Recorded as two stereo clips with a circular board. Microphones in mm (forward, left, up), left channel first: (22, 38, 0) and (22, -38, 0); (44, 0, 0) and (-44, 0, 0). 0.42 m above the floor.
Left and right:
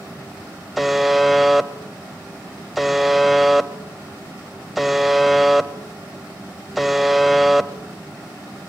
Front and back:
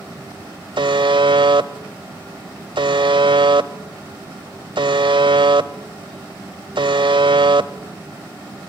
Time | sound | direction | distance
0.8 | a buzzer | straight behind | 1.0 m